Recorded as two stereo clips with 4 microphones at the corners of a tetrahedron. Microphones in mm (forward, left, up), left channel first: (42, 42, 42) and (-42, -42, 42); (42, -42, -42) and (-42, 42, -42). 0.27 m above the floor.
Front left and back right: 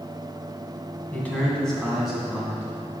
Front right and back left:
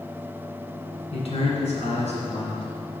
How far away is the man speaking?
About 2.0 m.